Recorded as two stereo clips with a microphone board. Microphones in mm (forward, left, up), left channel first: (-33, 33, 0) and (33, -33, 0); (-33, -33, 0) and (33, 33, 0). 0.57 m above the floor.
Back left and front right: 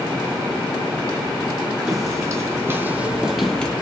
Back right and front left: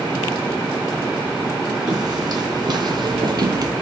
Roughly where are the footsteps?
Ahead.